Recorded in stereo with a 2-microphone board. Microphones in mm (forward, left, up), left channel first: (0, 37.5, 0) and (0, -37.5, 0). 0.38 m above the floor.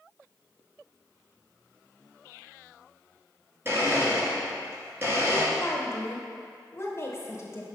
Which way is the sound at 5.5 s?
40° left (ahead or behind).